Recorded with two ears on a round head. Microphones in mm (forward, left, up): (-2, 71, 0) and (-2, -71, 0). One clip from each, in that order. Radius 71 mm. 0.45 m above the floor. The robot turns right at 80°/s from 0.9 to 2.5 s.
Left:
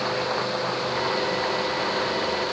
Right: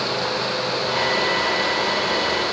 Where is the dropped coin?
No dropped coin in this recording.